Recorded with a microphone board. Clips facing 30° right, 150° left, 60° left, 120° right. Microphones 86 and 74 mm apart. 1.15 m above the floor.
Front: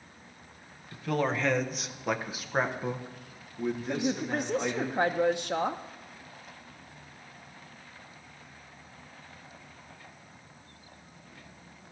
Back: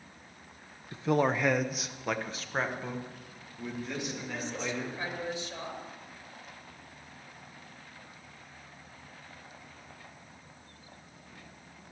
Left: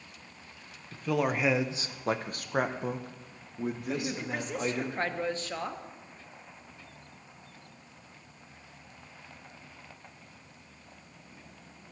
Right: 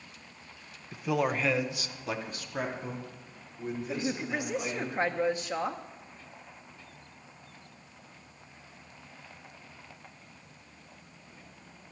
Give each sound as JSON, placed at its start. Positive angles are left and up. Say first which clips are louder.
{"t": 0.9, "sound": "a man speaking", "louder": "back 2 dB, even", "azimuth_deg": -175, "distance_m": 0.7}
{"t": 3.9, "sound": "a woman speaking", "louder": "front 7 dB, right 1 dB", "azimuth_deg": -45, "distance_m": 0.7}